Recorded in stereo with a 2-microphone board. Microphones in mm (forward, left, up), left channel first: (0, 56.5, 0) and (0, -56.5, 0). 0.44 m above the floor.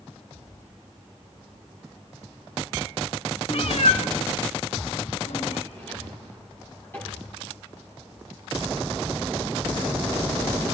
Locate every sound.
3.5 s a cat meowing: 60° left (ahead or behind), 0.5 m; by 5.6 s 70° left (ahead or behind), 2.5 m
5.7 s a drawer: 20° left (ahead or behind), 6.5 m